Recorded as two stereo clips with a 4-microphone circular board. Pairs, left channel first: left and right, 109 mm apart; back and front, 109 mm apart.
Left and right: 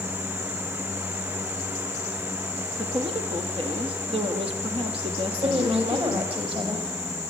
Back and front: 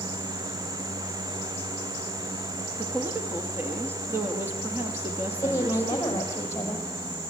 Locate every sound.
2.8 s a woman speaking: 70° right, 2.5 m
5.3 s a woman speaking: 115° right, 4.5 m